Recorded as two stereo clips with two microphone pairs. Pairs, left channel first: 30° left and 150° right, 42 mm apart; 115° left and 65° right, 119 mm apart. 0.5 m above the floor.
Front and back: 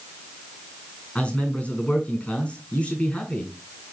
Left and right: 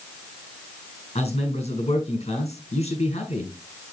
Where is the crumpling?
No crumpling in this recording.